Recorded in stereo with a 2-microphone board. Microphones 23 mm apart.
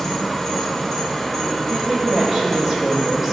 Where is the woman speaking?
15° right (ahead or behind), 3 m.